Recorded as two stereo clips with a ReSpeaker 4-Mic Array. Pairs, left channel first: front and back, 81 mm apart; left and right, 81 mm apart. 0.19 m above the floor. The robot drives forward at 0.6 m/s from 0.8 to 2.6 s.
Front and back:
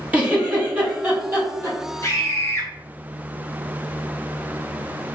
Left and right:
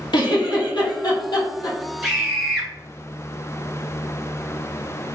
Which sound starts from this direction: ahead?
A scream, at 2.0 s.